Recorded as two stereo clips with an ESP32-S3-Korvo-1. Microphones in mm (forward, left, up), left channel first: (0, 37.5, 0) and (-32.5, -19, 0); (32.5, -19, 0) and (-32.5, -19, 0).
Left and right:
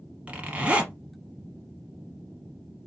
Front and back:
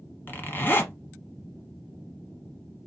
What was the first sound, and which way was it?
A zipper, 55° right.